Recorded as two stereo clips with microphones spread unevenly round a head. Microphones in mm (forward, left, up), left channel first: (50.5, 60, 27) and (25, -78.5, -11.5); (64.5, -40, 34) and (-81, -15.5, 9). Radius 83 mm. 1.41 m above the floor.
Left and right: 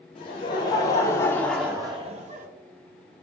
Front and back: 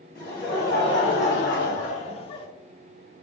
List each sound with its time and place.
0.1 s laughter: 60° left, 1.0 m; by 2.5 s 60° right, 0.7 m